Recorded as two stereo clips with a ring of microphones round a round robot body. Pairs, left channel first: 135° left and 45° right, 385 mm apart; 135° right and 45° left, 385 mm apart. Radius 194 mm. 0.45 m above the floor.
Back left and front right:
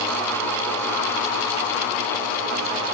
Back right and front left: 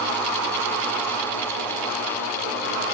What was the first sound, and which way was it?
Only background noise.